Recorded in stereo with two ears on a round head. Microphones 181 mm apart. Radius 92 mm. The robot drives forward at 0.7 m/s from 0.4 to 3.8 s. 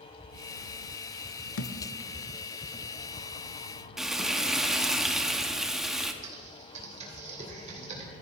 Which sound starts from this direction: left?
A thud, at 1.6 s.